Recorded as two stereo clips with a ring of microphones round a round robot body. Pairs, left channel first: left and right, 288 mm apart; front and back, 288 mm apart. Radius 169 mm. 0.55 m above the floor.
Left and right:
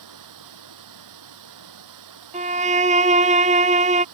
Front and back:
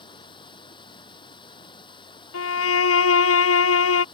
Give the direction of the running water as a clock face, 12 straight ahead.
3 o'clock.